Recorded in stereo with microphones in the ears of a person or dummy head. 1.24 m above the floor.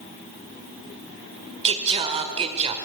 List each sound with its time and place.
1.6 s singing: 25° right (ahead or behind), 1.4 m